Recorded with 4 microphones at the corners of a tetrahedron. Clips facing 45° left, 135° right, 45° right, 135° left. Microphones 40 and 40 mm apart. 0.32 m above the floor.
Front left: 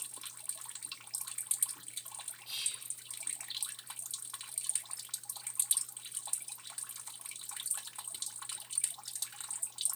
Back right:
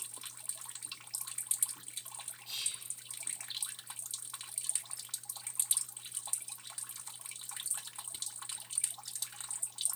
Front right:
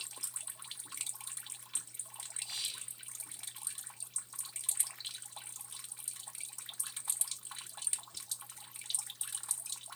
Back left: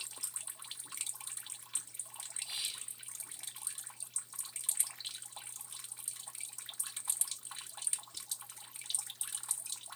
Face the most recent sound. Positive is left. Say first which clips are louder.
# even, even
turn(degrees=115)